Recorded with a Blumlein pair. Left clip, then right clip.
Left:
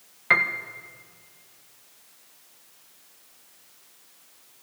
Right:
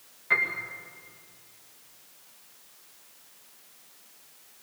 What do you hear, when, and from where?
0.3 s a piano: 30° left, 1.8 m